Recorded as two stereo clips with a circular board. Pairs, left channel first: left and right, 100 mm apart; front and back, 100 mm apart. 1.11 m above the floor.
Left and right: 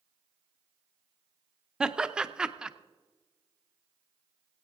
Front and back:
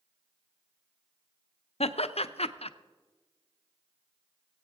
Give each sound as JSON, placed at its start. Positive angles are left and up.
{"t": 1.8, "sound": "laughter", "azimuth_deg": -10, "distance_m": 0.6}